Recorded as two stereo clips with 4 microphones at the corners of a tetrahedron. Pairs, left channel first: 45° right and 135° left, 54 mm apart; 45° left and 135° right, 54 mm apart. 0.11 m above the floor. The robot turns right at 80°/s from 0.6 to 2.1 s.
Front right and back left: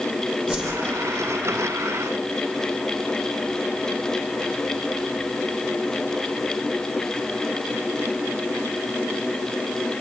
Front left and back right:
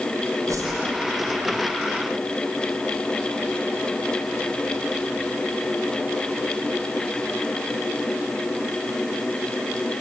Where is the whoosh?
155° right, 4.5 m; by 0.7 s 145° right, 4.5 m.